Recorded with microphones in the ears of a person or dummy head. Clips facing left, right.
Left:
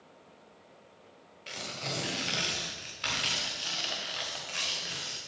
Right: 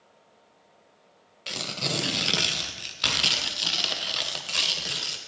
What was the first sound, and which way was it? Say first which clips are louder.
Tearing paper: right 6 dB; 60° right (ahead or behind).